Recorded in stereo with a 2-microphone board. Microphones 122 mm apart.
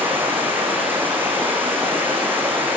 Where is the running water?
15° right (ahead or behind), 6 m.